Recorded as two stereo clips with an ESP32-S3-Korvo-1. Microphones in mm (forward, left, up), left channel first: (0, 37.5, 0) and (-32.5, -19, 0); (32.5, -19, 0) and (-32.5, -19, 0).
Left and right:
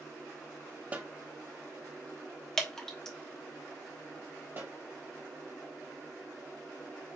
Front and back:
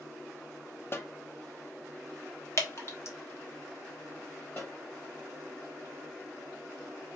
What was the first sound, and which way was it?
A snare drum, 55° right.